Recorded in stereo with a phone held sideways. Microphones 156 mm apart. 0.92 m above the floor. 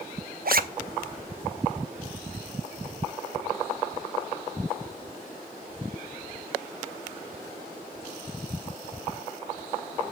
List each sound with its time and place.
0.5 s a zipper: 70° right (ahead or behind), 0.7 m